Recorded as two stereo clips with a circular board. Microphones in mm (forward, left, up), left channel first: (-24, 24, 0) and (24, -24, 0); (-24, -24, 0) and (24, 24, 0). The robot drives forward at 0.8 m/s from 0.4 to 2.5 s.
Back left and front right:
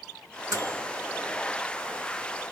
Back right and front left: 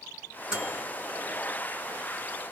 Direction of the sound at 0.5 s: 25° right.